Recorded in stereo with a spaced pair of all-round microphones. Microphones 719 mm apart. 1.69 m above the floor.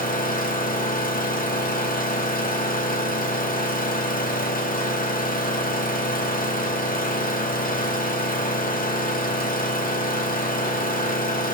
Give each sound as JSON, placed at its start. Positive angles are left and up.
{"t": 0.0, "sound": "an engine running", "side_deg": 10, "distance_m": 2.0}